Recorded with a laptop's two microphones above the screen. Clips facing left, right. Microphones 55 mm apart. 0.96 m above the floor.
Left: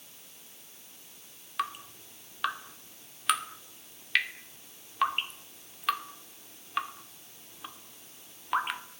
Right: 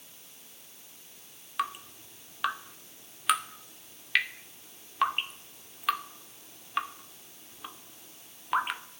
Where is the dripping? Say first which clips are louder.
Right 1 dB; 5° right (ahead or behind), 2.5 m.